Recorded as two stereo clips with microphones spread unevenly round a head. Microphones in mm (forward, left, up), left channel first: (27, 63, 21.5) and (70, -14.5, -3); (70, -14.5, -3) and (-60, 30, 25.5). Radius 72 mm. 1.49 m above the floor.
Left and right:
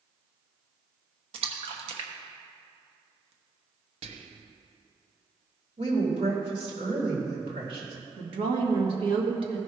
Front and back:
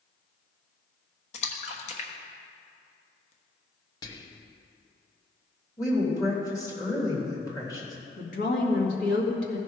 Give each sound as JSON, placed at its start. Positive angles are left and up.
{"t": 1.3, "sound": "a splash", "azimuth_deg": -65, "distance_m": 1.1}
{"t": 4.0, "sound": "whispering", "azimuth_deg": -85, "distance_m": 0.9}
{"t": 5.8, "sound": "a woman speaking", "azimuth_deg": -85, "distance_m": 2.5}
{"t": 8.2, "sound": "a woman speaking", "azimuth_deg": -50, "distance_m": 2.0}